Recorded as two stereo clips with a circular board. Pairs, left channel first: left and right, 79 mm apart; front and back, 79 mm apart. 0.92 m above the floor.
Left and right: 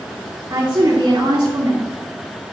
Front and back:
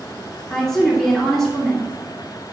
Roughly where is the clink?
I don't hear a clink.